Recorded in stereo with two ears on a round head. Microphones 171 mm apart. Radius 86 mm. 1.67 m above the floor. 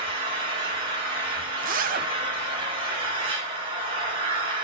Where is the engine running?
30° right (ahead or behind), 6 m.